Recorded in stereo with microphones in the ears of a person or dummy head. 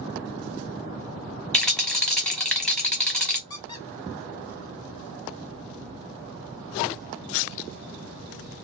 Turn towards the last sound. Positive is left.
turn(degrees=25)  # may be behind; listen again after turning